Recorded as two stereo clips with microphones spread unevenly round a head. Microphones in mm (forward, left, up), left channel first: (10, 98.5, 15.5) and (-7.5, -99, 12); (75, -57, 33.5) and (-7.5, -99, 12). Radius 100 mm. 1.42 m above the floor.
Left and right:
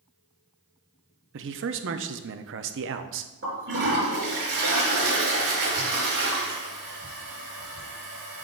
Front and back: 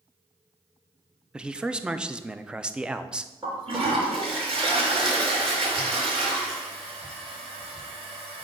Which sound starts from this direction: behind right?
A toilet flushing, at 3.4 s.